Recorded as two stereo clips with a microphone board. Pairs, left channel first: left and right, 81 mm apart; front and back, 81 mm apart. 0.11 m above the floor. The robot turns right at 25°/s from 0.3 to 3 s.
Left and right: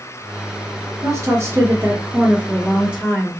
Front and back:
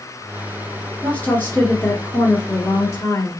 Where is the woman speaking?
65° right, 2 m; by 3.3 s 15° right, 2 m.